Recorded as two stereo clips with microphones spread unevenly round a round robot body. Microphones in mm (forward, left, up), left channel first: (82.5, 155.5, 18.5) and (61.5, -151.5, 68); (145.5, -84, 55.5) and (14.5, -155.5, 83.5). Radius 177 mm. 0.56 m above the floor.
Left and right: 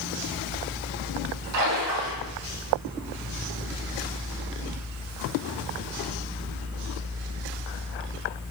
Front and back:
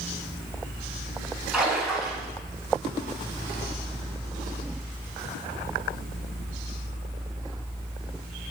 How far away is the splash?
About 7 m.